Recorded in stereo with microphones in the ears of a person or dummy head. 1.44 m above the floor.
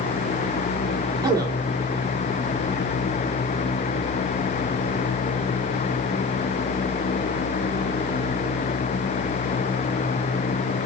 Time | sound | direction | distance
1.2 | a man speaking | 15° right (ahead or behind) | 1.6 m